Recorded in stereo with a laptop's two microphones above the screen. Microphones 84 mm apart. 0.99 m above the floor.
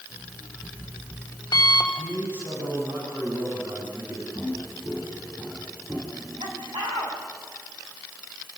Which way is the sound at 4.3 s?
40° right (ahead or behind).